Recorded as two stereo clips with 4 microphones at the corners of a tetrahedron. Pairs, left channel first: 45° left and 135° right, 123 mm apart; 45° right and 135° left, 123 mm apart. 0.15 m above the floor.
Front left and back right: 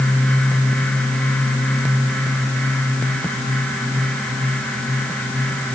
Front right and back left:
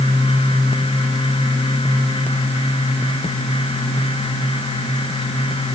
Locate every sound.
Only background noise.